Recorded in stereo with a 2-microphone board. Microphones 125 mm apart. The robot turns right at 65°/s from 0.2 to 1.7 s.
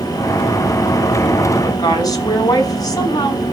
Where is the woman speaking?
25° left (ahead or behind), 5.5 m; by 3.4 s 30° left (ahead or behind), 5.5 m.